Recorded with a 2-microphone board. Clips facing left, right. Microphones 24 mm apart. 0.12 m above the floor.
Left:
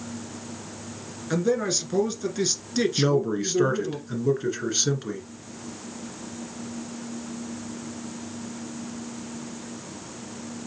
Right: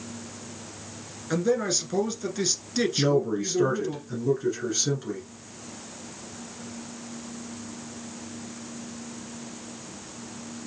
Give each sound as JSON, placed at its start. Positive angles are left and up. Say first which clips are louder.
{"t": 1.3, "sound": "a man speaking", "louder": "left 1 dB", "side_deg": 5, "distance_m": 1.3}
{"t": 3.0, "sound": "a man speaking", "louder": "right 1 dB", "side_deg": 30, "distance_m": 1.7}